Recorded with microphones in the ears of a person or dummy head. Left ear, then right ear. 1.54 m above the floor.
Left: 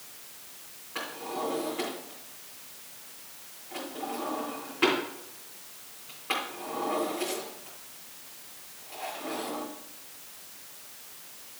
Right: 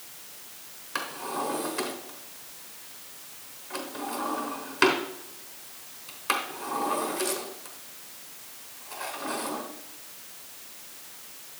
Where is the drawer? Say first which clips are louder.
Right 3 dB; 60° right (ahead or behind), 3 m.